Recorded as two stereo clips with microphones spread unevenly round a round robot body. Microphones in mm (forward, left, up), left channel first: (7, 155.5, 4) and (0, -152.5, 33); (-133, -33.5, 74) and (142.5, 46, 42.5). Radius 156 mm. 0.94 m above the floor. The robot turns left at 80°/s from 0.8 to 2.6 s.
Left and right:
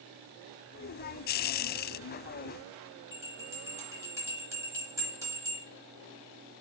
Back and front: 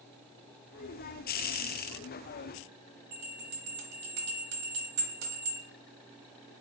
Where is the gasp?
No gasp in this recording.